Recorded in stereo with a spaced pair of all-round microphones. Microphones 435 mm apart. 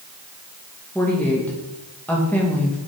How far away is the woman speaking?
About 1.9 m.